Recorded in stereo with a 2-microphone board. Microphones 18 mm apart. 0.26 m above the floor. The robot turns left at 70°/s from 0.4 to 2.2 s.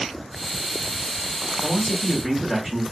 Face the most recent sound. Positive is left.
turn(degrees=-20)  # may be behind; listen again after turning